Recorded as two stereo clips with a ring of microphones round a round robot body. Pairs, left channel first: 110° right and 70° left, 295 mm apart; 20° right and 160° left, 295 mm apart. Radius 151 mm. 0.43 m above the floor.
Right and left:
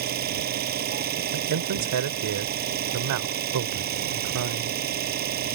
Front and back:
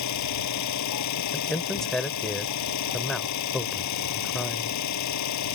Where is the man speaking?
65° left.